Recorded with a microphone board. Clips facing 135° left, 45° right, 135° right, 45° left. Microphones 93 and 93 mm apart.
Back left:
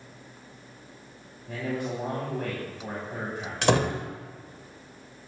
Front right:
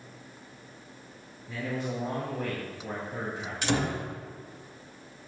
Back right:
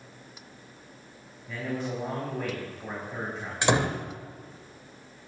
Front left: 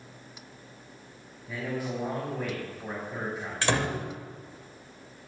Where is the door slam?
150° left, 1.2 m.